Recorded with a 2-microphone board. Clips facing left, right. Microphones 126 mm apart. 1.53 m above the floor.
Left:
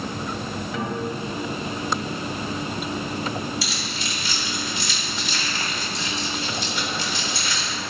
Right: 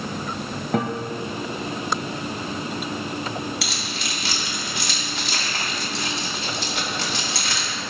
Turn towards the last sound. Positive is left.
turn(degrees=-65)  # may be behind; listen again after turning